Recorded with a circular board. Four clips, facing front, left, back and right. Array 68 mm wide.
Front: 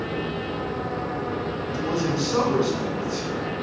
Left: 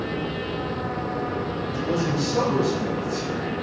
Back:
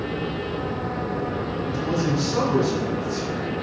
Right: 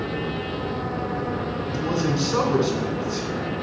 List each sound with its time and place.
1.6 s a man speaking: 70° right, 2.5 m